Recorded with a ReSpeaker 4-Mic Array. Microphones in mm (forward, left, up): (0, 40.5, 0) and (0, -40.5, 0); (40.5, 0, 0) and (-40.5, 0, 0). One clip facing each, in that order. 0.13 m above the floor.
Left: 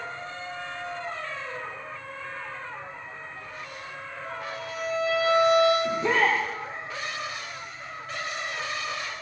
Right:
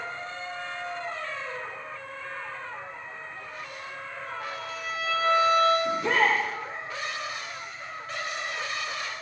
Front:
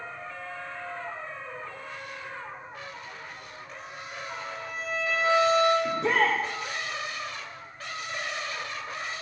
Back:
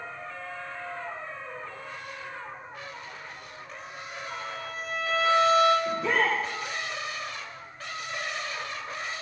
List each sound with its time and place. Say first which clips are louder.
4.2 s a violin: left 1 dB, back 1 dB; 60° left, 8 m
5.8 s a shout: even, front 1 dB; 30° left, 4 m